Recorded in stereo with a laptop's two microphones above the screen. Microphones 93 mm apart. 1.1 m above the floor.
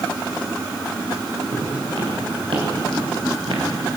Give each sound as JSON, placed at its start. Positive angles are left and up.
{"t": 1.5, "sound": "footsteps", "side_deg": -80, "distance_m": 8.0}